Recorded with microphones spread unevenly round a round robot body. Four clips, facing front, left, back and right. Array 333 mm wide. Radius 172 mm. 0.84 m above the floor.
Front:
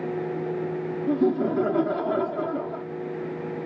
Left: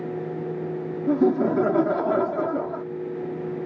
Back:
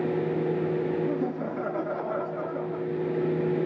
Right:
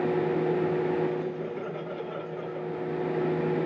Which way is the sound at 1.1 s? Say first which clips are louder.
Left 11 dB, front 6 dB; 60° left.